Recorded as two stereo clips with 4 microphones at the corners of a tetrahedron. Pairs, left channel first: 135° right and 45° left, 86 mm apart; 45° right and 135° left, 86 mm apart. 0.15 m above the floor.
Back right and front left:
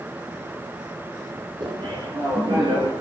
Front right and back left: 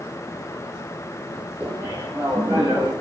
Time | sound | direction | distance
1.6 | laughter | 65° left | 5.5 m